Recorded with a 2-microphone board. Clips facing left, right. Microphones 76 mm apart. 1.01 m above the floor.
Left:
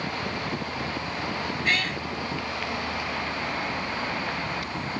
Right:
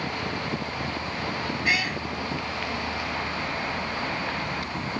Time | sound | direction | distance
1.6 | a cat meowing | 10° right (ahead or behind) | ?